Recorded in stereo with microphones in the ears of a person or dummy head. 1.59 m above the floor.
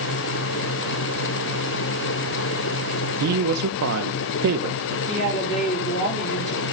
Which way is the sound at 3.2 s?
80° right.